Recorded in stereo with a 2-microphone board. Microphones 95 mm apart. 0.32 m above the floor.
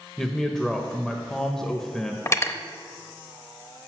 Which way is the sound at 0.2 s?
5° left (ahead or behind).